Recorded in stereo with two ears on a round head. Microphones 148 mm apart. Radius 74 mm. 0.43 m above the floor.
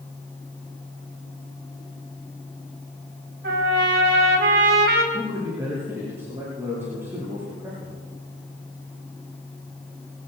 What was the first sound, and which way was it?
A trumpet, 65° right (ahead or behind).